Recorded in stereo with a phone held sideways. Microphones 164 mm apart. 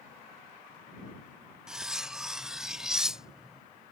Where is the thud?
I don't hear a thud.